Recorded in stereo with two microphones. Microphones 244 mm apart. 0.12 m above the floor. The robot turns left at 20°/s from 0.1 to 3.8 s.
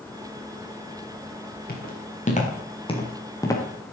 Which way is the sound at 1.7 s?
40° left (ahead or behind).